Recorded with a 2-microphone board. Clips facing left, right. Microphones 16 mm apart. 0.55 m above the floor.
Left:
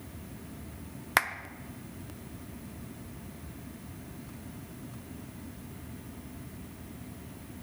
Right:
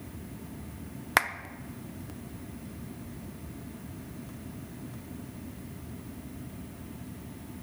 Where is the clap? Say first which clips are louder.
Right 1 dB; 5° right (ahead or behind), 0.6 m.